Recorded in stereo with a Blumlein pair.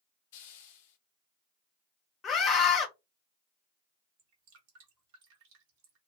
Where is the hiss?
50° left, 0.6 m.